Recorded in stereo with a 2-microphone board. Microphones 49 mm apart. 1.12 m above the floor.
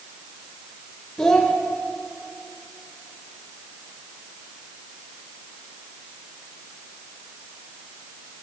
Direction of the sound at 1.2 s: 35° left (ahead or behind).